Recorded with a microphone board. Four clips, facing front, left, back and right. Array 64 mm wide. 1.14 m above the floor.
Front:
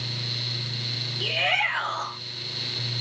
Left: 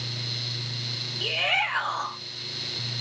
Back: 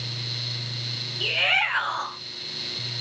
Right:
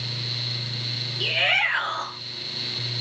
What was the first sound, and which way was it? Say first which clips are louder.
A shout: right 3 dB, back 1 dB; 100° right.